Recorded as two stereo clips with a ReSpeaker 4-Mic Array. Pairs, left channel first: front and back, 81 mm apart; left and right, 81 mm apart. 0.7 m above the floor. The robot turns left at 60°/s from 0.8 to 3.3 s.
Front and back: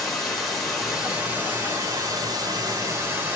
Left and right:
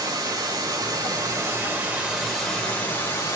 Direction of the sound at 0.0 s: 85° right.